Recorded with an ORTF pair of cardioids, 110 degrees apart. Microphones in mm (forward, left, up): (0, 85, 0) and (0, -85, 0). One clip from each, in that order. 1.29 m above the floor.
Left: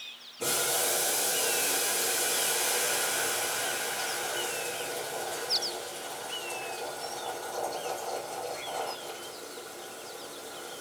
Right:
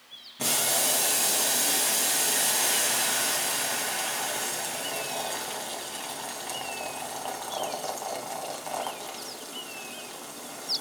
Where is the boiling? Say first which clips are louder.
Right 3 dB; 70° right, 1.8 m.